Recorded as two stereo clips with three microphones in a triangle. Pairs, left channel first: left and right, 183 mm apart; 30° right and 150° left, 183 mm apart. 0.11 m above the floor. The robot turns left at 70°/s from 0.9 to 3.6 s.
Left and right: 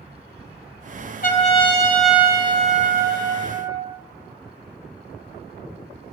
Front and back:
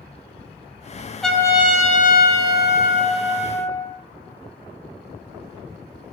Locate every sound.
1.2 s a trumpet: 60° left, 1.0 m; by 3.9 s 110° right, 1.0 m